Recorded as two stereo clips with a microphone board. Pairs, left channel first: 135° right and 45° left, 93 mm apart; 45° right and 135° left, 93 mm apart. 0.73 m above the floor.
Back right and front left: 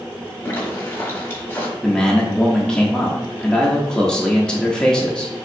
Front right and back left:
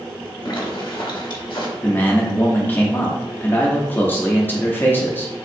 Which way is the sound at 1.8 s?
70° right.